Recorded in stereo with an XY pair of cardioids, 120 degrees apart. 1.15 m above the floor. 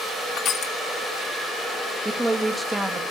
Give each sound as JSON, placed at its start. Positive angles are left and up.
{"t": 0.4, "sound": "crushing", "azimuth_deg": 60, "distance_m": 1.5}
{"t": 2.0, "sound": "a woman speaking", "azimuth_deg": -10, "distance_m": 2.0}